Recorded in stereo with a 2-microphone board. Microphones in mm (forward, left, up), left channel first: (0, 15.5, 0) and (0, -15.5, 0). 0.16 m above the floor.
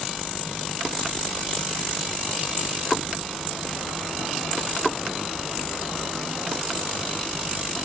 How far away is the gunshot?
No gunshot in this recording.